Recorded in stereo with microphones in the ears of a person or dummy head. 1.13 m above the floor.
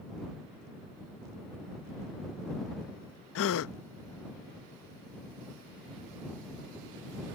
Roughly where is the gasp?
Left.